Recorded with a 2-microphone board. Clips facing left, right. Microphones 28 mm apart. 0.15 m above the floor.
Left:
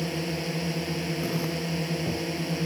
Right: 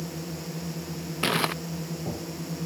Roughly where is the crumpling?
Right.